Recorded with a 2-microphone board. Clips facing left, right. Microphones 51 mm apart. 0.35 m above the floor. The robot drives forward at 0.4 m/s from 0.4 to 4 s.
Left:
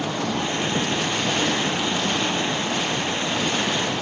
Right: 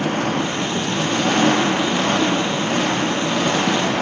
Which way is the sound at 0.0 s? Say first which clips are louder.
Right 5 dB; 45° right (ahead or behind).